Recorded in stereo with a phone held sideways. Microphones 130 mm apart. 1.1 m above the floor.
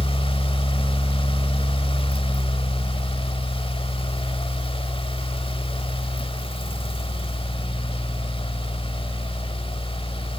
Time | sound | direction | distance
0.0 | a fan | 45° left (ahead or behind) | 1.2 m